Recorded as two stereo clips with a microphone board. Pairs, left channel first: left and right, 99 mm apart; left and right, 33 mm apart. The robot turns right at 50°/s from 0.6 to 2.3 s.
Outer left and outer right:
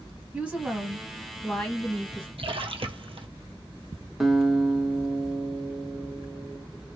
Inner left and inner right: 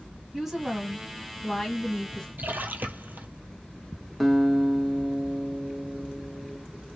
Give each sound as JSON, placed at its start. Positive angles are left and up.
{"t": 0.3, "sound": "a woman speaking", "side_deg": -10, "distance_m": 1.3}
{"t": 2.4, "sound": "a splash", "side_deg": -70, "distance_m": 0.7}
{"t": 4.2, "sound": "a guitar", "side_deg": 0, "distance_m": 0.7}